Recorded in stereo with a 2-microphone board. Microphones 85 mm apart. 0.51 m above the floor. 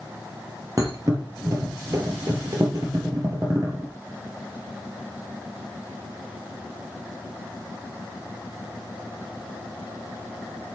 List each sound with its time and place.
0.8 s a thud: 40° right (ahead or behind), 4 m